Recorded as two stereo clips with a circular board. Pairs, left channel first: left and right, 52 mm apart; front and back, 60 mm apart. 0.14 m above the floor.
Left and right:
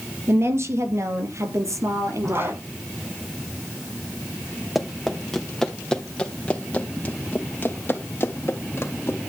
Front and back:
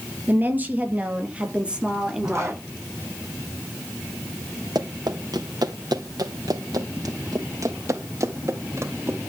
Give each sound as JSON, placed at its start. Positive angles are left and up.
{"t": 0.3, "sound": "a woman speaking", "azimuth_deg": -125, "distance_m": 3.0}
{"t": 2.2, "sound": "a zipper", "azimuth_deg": -135, "distance_m": 7.5}
{"t": 4.8, "sound": "running footsteps", "azimuth_deg": 180, "distance_m": 3.0}